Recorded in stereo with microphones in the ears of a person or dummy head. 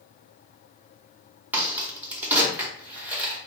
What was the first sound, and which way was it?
A crack, 10° right (ahead or behind).